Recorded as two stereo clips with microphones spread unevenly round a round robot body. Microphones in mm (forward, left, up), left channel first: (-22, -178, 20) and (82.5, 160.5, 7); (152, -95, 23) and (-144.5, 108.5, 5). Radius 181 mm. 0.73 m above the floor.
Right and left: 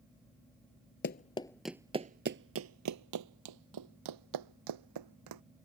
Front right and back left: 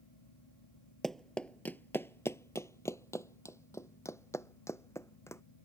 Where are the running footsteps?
115° right; by 5.4 s 45° left.